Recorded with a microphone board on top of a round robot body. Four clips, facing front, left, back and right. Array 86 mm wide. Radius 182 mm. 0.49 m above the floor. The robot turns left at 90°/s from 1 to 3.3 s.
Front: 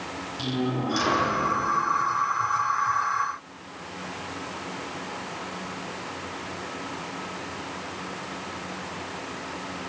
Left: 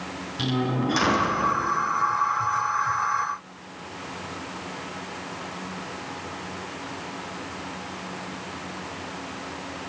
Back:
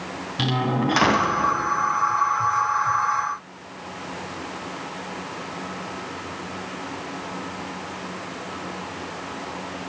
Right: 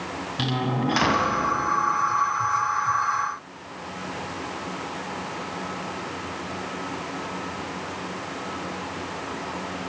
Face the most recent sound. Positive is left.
turn(degrees=-5)